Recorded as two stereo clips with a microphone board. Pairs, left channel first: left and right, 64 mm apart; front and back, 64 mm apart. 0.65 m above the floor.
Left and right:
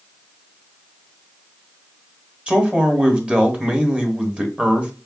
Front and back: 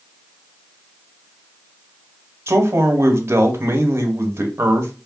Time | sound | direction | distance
2.5 | a man speaking | 155° right | 1.2 m